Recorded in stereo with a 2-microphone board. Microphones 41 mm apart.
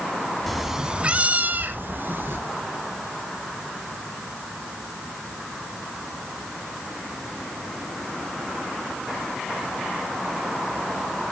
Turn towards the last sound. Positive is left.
turn(degrees=-60)  # may be behind; listen again after turning